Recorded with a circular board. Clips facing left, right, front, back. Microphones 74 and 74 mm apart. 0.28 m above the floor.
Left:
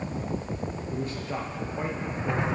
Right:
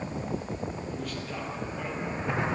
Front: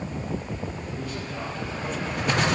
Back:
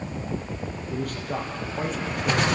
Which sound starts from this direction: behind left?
A man speaking, at 0.9 s.